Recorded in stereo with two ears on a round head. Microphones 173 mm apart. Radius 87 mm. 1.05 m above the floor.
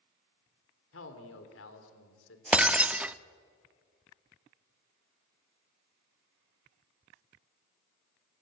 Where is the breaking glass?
5° right (ahead or behind), 0.6 m.